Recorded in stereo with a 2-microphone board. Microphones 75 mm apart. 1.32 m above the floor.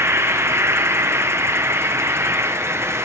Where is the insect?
35° right (ahead or behind), 0.8 m.